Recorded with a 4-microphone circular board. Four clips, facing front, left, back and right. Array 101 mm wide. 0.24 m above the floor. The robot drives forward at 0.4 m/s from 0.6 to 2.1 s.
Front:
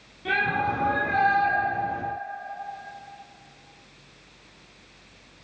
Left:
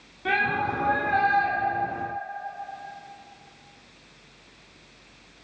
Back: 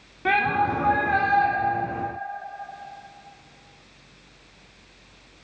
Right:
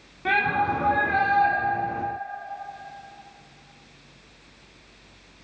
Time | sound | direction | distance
0.2 | a shout | 165° right | 1.6 m